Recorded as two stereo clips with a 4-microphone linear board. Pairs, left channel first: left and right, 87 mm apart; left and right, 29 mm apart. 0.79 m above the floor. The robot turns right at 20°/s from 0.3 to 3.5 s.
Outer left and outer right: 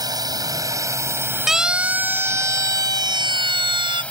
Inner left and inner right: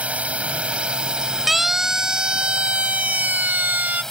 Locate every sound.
0.0 s a drone: 50° right; by 4.1 s 15° left
1.5 s a siren: 5° right (ahead or behind); by 4.0 s 70° right (ahead or behind)